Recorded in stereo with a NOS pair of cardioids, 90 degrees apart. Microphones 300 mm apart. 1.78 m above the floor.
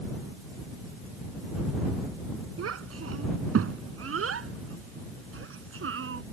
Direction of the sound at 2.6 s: 50° right.